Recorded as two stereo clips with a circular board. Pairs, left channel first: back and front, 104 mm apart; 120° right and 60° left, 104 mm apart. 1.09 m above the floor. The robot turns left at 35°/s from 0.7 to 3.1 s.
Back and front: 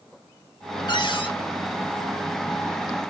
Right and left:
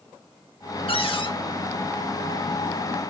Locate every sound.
0.9 s a cupboard door: 140° right, 1.5 m; by 1.3 s 155° right, 1.5 m